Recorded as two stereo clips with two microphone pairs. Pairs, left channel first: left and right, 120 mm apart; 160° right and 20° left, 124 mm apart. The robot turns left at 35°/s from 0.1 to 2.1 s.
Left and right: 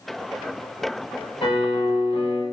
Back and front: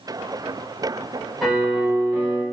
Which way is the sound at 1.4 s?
110° left.